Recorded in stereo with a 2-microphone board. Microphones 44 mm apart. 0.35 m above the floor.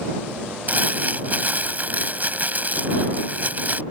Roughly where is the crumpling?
Right.